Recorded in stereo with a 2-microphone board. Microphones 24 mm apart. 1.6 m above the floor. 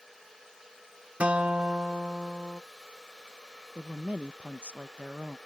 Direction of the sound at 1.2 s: 80° right.